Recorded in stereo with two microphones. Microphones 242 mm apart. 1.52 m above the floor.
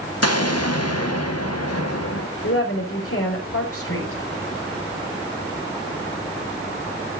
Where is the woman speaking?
70° left (ahead or behind), 5 m.